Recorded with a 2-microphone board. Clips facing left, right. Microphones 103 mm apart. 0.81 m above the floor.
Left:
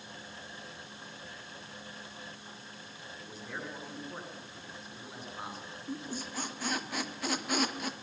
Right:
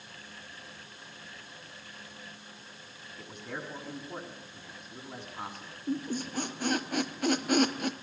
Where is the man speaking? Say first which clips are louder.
Right 2 dB; 60° right (ahead or behind), 9 m.